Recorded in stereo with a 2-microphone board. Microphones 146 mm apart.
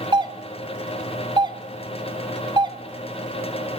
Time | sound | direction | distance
0.1 | a doorbell | 30° right (ahead or behind) | 1.3 m